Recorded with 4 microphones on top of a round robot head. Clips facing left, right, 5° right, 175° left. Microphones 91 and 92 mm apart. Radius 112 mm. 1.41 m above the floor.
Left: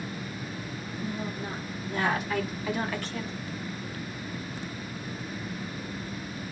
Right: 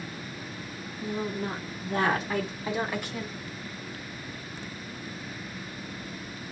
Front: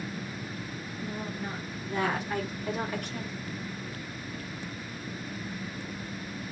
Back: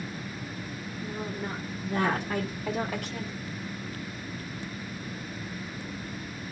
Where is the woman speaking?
110° right, 1.4 m; by 3.3 s 175° right, 1.4 m.